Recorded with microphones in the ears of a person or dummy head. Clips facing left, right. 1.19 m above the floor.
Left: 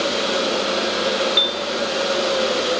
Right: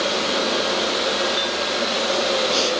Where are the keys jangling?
No keys jangling in this recording.